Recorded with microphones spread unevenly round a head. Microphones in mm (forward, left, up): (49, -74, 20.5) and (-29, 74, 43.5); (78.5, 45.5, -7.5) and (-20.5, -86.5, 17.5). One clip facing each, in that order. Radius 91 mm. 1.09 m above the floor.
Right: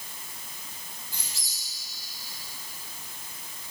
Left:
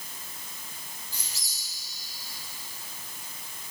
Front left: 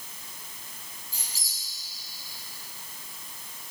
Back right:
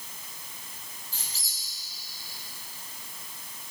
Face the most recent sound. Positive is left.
turn(degrees=-25)